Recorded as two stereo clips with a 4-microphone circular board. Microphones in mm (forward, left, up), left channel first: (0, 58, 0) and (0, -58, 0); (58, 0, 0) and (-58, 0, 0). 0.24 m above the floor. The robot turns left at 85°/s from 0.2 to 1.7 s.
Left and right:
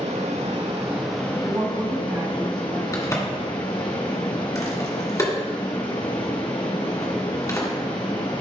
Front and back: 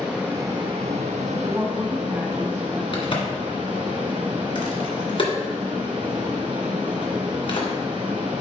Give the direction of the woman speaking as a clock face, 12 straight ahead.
4 o'clock.